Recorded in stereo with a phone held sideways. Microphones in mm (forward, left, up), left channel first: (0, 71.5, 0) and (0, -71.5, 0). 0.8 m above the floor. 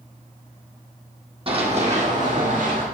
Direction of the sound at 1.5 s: 40° right (ahead or behind).